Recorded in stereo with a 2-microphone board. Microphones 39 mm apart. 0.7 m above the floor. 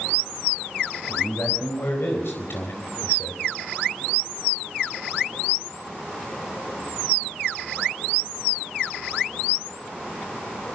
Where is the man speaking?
70° left (ahead or behind), 4.5 m; by 3.5 s 75° left (ahead or behind), 3 m.